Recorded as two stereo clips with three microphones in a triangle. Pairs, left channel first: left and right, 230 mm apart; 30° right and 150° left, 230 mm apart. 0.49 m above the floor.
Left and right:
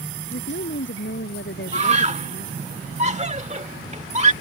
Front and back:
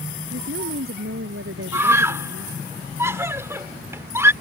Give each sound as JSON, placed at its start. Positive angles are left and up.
{"t": 0.3, "sound": "a woman speaking", "azimuth_deg": 125}
{"t": 1.7, "sound": "a scream", "azimuth_deg": -135}